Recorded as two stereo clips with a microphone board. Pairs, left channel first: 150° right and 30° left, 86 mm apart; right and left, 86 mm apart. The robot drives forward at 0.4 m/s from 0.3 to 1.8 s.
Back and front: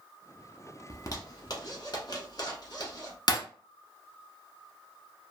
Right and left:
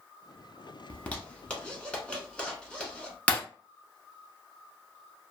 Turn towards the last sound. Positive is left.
turn(degrees=-160)